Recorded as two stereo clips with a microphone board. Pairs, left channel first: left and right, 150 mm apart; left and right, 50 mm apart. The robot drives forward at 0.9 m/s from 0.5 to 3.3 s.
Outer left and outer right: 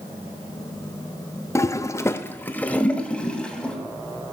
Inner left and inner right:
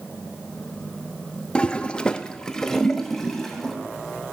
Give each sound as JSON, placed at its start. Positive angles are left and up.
{"t": 1.6, "sound": "a toilet flushing", "side_deg": 20, "distance_m": 0.5}